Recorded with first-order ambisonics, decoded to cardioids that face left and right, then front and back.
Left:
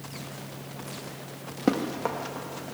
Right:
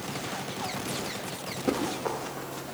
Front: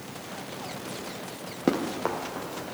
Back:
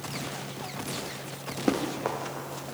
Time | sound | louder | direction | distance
1.7 | running footsteps | left 2 dB, front 1 dB | 35° left | 4 m